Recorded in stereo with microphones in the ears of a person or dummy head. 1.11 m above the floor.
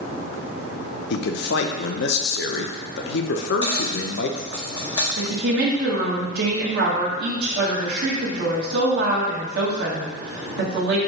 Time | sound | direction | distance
1.1 | a man speaking | 60° left (ahead or behind) | 0.6 m
3.4 | a dropped coin | 25° left (ahead or behind) | 0.9 m
5.2 | a woman speaking | 55° right (ahead or behind) | 1.4 m